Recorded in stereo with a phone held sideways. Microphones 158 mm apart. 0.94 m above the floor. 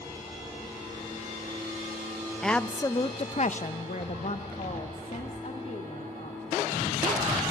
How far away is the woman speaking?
About 0.8 m.